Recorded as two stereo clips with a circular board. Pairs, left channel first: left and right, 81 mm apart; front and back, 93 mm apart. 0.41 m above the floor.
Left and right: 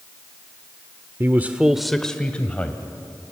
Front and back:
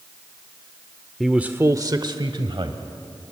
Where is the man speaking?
90° right, 0.8 m; by 2.8 s 160° left, 1.9 m.